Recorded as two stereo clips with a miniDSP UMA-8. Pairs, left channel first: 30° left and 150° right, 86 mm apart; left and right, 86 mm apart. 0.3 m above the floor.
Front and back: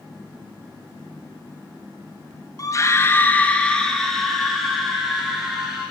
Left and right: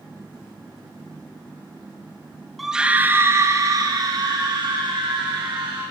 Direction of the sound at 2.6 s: Straight ahead.